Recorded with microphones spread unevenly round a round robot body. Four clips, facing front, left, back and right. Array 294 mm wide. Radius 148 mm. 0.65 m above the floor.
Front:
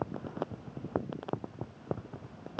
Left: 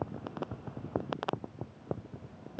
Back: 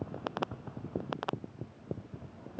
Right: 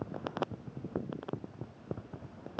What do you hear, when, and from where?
Only background noise.